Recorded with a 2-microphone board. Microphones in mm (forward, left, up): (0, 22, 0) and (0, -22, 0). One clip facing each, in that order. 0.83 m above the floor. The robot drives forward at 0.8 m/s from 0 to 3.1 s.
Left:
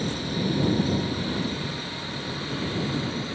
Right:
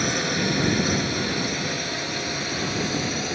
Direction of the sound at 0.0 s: 85° right.